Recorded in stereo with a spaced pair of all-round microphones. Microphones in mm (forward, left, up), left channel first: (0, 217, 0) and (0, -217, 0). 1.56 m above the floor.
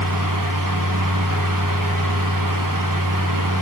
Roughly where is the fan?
Right.